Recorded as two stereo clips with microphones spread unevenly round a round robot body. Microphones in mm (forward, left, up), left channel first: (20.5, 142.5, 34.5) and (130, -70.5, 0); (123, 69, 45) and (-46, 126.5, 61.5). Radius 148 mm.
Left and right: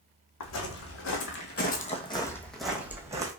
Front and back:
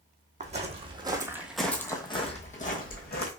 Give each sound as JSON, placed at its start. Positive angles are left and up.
{"t": 0.4, "sound": "footsteps", "azimuth_deg": 115, "distance_m": 1.2}